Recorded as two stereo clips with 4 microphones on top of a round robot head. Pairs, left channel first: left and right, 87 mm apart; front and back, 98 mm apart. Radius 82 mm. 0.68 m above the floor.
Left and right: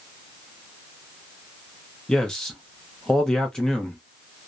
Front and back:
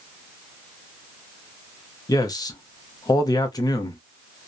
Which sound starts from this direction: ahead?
A man speaking, at 2.1 s.